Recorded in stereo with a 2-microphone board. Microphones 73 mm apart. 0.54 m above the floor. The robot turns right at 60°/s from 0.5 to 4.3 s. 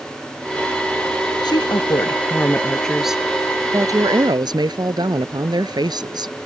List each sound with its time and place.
1.4 s a woman speaking: 85° left; by 6.3 s 100° right